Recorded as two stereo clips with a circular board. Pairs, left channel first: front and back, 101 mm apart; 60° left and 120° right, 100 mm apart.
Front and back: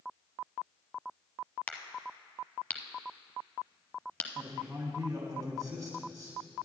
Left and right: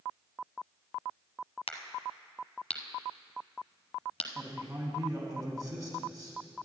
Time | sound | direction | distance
1.7 | a crack | 75° left | 0.8 m
4.3 | a man speaking | 145° right | 1.5 m